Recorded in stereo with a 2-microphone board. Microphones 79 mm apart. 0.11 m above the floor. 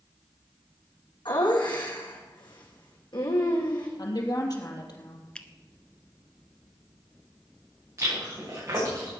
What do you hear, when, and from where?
1.2 s laughter: 75° left (ahead or behind), 5 m
4.0 s a woman speaking: 55° left (ahead or behind), 3 m
5.3 s a finger snap: 15° left (ahead or behind), 0.9 m
8.0 s chewing: 35° right (ahead or behind), 9 m